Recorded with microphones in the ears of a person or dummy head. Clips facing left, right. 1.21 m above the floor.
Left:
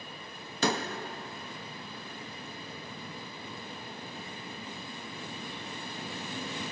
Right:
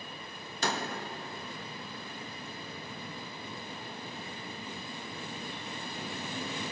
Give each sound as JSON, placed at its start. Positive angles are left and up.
{"t": 0.6, "sound": "a door slam", "side_deg": 65, "distance_m": 0.9}